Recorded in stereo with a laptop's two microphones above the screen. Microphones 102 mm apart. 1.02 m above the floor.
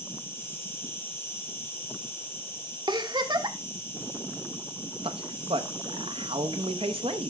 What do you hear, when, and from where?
0.0 s an insect: 20° left (ahead or behind), 3 m
2.9 s a giggle: 45° right (ahead or behind), 0.9 m
5.0 s a man speaking: 65° right (ahead or behind), 0.8 m